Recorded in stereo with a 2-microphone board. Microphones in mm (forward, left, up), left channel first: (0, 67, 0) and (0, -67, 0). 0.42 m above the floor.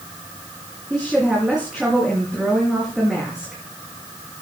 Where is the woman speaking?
5° right (ahead or behind), 5.5 m.